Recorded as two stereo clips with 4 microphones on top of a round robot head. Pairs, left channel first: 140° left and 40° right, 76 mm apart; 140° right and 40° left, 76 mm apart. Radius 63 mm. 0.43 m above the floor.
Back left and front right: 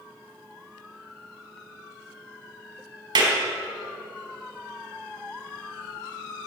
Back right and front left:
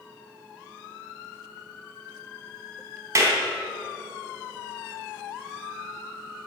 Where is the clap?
10° right, 3 m.